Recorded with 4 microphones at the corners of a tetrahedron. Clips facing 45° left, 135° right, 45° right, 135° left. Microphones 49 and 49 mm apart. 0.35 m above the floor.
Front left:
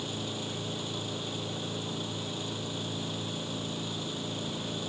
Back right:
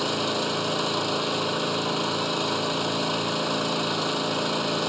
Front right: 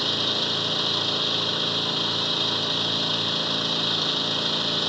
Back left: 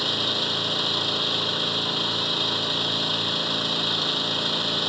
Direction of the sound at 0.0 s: 135° right.